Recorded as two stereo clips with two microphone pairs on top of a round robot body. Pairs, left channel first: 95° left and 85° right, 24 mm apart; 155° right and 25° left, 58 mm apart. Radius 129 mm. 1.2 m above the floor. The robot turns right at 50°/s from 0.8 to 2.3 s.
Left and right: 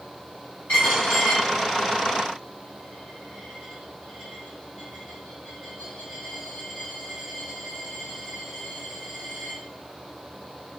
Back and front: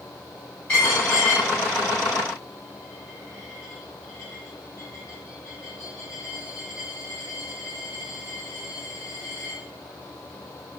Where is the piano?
I don't hear a piano.